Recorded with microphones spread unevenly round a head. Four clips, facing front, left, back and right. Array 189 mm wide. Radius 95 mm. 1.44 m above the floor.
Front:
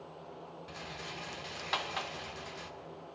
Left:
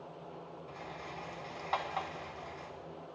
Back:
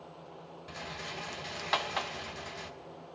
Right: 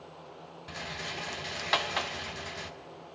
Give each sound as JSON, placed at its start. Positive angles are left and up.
{"t": 0.7, "sound": "a rattle", "azimuth_deg": -90, "distance_m": 1.2}